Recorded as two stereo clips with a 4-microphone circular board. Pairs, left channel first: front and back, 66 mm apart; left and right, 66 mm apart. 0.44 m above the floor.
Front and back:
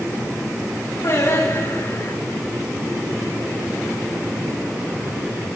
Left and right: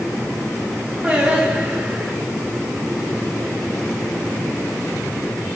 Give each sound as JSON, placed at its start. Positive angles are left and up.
{"t": 1.0, "sound": "singing", "azimuth_deg": -20, "distance_m": 7.0}